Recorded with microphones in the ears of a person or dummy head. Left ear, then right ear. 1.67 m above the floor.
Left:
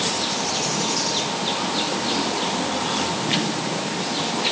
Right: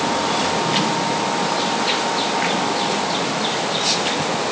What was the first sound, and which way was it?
Only background noise.